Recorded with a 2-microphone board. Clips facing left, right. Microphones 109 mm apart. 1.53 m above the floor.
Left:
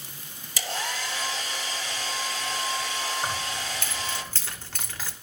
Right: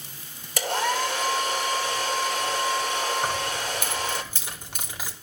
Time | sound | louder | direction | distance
0.6 | a hair dryer | right 8 dB | 55° right (ahead or behind) | 2.5 m
3.2 | keys jangling | right 4 dB | 15° right (ahead or behind) | 3 m